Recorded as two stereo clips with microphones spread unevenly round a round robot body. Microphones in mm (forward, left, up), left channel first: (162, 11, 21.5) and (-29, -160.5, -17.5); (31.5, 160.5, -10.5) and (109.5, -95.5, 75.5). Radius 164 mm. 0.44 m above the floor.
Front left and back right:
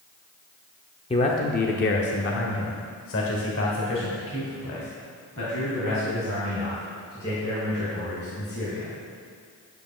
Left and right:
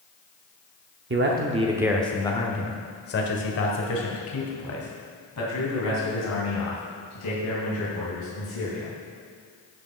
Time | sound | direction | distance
1.1 | a man speaking | 25° right | 0.9 m